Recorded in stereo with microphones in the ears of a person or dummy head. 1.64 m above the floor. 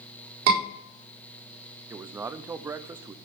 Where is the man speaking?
10° right (ahead or behind), 0.5 m.